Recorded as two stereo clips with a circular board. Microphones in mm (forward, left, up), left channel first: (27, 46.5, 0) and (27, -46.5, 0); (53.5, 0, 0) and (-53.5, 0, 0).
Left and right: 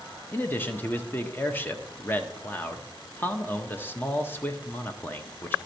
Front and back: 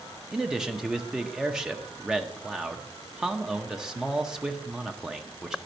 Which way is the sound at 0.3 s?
105° left.